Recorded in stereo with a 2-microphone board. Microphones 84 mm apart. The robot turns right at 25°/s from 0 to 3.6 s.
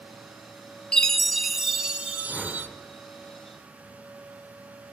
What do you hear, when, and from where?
0.9 s a chime: 170° left, 0.5 m; by 2.7 s 150° right, 0.5 m
2.2 s a whoosh: 10° right (ahead or behind), 1.2 m; by 2.8 s 5° left (ahead or behind), 1.2 m